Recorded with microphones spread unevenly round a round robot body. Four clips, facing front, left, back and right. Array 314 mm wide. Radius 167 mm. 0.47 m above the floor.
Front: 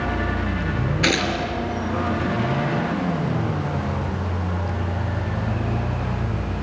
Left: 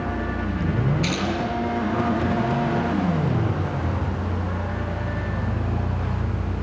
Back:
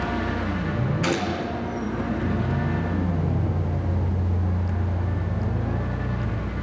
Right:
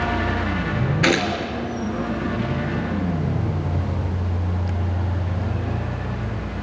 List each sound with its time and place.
1.0 s a gunshot: 60° right, 4 m